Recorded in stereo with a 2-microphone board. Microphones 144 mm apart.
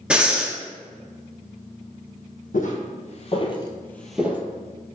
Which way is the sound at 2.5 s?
65° left (ahead or behind).